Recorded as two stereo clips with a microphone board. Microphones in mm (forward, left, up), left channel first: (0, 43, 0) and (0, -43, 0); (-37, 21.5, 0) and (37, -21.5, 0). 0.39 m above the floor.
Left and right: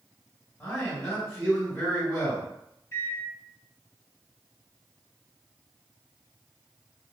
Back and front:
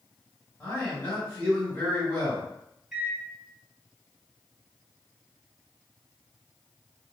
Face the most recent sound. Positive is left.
turn(degrees=50)